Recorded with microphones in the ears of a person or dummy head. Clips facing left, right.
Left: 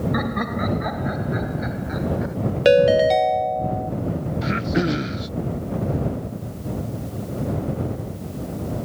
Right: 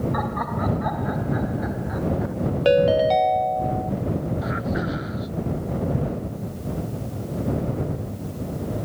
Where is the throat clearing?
35° left (ahead or behind).